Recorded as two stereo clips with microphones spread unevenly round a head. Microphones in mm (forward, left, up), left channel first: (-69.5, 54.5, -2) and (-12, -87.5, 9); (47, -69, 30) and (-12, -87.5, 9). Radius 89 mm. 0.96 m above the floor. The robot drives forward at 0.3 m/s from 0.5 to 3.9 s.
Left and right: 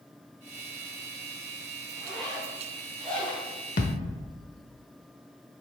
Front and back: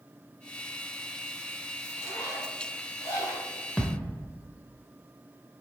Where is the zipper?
20° left, 3.5 m; by 3.5 s 25° left, 3 m.